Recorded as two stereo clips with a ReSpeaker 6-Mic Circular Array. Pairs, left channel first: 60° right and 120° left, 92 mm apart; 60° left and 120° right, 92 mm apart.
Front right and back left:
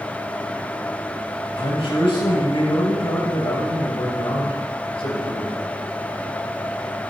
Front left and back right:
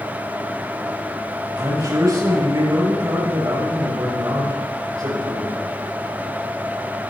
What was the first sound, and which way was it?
A man speaking, 75° right.